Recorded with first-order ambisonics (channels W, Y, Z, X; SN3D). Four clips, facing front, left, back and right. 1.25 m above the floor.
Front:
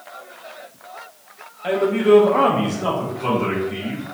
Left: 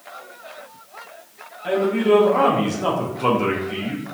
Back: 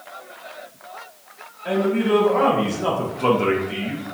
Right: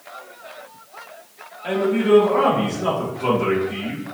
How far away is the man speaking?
About 0.9 m.